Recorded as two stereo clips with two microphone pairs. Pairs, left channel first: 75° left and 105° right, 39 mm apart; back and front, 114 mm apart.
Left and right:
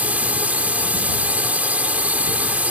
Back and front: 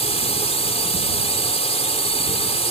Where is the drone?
155° right.